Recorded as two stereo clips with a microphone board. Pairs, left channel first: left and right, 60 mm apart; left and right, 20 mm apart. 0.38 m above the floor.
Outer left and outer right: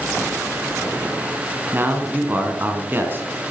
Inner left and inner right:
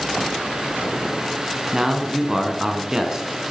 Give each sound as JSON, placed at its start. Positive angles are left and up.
{"t": 1.7, "sound": "a man speaking", "side_deg": -35, "distance_m": 3.5}